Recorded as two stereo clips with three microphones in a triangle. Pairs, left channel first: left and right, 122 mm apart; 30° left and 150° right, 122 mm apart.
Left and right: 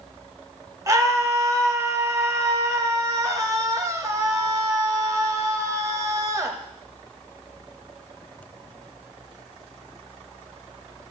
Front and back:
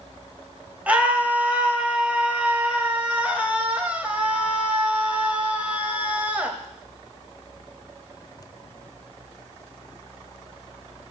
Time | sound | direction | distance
0.9 | a scream | 85° right | 1.3 m